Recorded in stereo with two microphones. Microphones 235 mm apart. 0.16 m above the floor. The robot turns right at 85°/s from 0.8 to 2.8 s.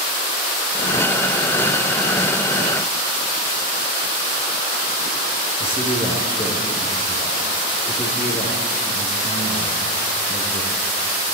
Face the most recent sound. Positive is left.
turn(degrees=25)  # may be behind; listen again after turning